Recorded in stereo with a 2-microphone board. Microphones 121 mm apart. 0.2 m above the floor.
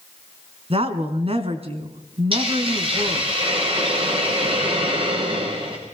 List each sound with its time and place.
0.7 s a woman speaking: 55° right (ahead or behind), 2.5 m
2.3 s a hiss: 50° right (ahead or behind), 5 m